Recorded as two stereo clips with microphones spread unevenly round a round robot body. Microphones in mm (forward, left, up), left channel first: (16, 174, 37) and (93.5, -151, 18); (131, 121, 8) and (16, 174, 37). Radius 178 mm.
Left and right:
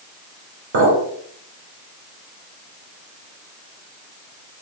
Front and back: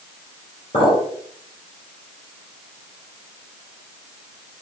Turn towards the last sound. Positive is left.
turn(degrees=-85)